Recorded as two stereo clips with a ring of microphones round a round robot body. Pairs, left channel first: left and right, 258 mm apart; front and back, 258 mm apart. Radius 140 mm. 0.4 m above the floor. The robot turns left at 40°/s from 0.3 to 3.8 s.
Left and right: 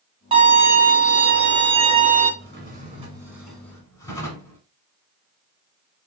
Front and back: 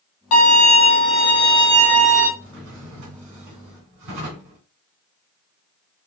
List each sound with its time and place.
0.3 s a violin: 20° right, 1.7 m; by 2.3 s 100° right, 1.7 m
2.4 s a drawer: 135° right, 2 m; by 4.6 s 170° left, 2 m